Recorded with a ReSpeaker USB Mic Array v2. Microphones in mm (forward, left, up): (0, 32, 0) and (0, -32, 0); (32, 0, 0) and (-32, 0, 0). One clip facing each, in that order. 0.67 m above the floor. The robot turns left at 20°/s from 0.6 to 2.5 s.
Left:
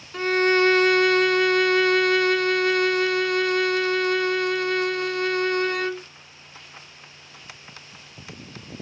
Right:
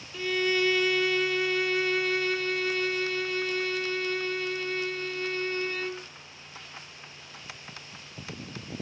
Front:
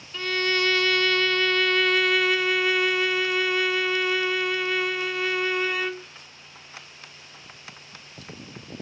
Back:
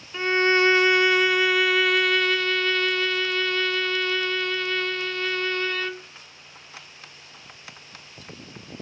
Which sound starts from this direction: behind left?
A violin, at 0.1 s.